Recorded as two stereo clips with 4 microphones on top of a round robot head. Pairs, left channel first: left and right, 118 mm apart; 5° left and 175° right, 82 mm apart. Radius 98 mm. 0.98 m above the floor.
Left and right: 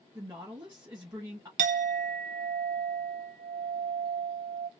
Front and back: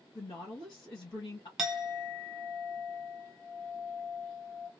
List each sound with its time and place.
0.1 s a woman speaking: 25° right, 1.4 m
1.6 s a clink: 90° right, 0.6 m